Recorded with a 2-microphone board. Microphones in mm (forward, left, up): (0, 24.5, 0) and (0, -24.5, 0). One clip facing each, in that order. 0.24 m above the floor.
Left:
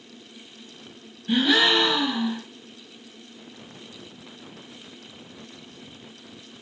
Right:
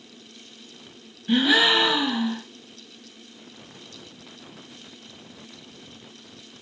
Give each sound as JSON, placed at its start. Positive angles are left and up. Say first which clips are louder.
{"t": 1.3, "sound": "a gasp", "louder": "right 1 dB", "side_deg": -10, "distance_m": 0.5}